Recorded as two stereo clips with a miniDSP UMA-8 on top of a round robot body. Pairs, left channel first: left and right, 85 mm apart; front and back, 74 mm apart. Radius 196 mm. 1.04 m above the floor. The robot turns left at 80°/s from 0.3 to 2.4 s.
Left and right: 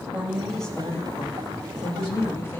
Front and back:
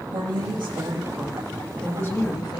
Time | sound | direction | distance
0.1 | a woman speaking | 165° right | 1.9 m